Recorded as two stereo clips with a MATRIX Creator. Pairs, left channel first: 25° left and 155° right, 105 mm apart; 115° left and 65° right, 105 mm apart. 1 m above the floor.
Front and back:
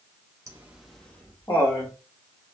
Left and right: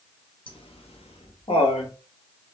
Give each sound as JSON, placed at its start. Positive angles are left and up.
{"t": 0.5, "sound": "laughter", "azimuth_deg": 145, "distance_m": 0.7}